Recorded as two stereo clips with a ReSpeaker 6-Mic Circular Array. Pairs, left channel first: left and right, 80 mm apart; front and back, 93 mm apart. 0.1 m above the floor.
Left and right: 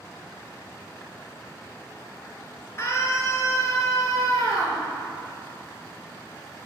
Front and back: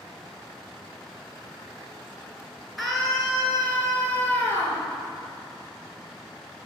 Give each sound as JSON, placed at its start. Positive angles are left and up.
{"t": 2.8, "sound": "a scream", "azimuth_deg": 85, "distance_m": 1.7}